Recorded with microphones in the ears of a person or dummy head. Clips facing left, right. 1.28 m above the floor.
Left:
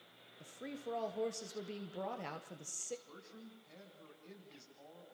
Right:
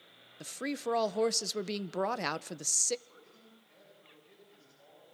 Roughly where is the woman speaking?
Right.